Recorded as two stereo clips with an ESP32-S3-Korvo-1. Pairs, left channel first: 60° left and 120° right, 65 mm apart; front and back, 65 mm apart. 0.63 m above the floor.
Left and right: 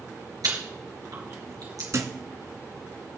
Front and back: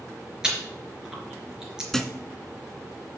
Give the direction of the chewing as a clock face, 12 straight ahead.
3 o'clock.